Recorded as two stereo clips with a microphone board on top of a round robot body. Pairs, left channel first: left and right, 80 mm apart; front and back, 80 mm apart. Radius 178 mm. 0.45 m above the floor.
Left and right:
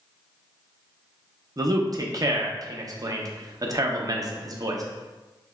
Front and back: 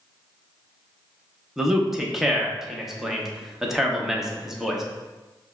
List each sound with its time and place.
1.6 s a man speaking: 95° right, 1.0 m